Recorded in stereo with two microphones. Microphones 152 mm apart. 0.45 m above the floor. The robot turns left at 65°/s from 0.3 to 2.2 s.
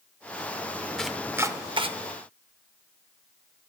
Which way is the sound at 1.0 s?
5° left (ahead or behind).